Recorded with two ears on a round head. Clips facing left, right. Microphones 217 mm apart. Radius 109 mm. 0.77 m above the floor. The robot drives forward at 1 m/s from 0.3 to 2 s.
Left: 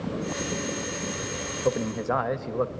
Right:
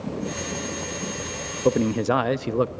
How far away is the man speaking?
About 0.6 m.